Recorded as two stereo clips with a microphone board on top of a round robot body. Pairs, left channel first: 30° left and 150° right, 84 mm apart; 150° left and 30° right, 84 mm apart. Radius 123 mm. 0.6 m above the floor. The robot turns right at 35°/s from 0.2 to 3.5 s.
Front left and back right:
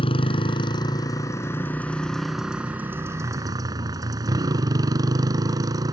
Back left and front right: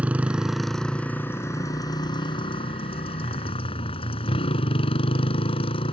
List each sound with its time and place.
0.0 s a motorcycle: 45° left; by 5.9 s 160° left